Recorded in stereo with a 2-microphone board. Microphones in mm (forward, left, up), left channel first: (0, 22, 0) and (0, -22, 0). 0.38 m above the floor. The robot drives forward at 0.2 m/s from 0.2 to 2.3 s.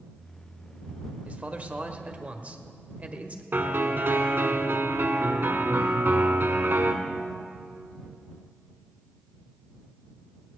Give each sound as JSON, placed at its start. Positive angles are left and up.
{"t": 1.2, "sound": "a man speaking", "side_deg": -35, "distance_m": 1.0}
{"t": 3.5, "sound": "a piano", "side_deg": -50, "distance_m": 1.4}